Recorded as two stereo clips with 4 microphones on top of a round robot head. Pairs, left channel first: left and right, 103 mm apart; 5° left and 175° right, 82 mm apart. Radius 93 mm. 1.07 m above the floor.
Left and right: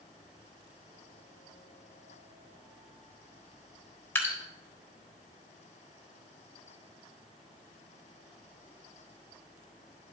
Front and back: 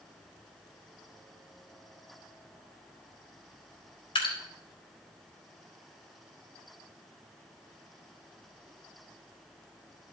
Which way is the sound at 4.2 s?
20° left.